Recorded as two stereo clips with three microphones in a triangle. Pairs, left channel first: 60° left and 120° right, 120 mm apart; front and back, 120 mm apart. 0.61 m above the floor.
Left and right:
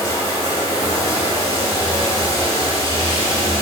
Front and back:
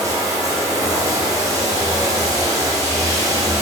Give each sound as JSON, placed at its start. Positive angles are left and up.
{"t": 0.0, "sound": "running water", "azimuth_deg": 120, "distance_m": 2.0}